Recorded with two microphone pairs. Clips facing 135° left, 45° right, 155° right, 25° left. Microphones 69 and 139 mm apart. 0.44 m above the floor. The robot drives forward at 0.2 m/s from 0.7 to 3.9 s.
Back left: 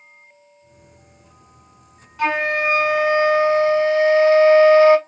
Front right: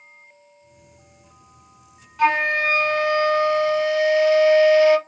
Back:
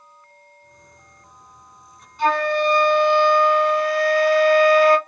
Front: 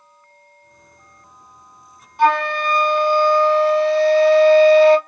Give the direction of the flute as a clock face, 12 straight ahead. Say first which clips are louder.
Front right 1 dB, front 2 dB; 10 o'clock.